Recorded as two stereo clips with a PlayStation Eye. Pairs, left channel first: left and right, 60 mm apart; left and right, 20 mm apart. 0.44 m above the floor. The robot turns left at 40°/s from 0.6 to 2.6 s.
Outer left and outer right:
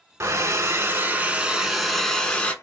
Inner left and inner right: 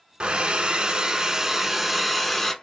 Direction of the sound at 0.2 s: 130° right.